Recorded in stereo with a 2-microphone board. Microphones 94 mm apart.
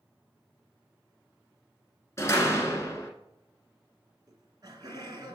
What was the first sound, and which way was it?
A door slam, 30° left (ahead or behind).